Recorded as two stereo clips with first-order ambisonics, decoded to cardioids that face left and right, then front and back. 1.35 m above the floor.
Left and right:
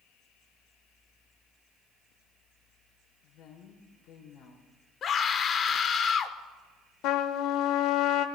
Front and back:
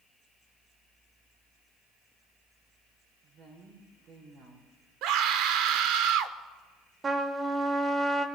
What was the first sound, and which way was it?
A woman speaking, 130° left.